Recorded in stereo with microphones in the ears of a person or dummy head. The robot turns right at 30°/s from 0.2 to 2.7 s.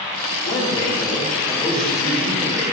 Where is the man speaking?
140° left, 4.5 m; by 2.6 s 155° right, 4.5 m.